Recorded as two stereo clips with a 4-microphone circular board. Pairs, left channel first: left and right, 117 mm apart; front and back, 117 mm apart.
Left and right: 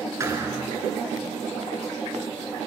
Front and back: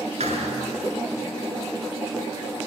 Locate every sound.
0.2 s a thud: 155° right, 8 m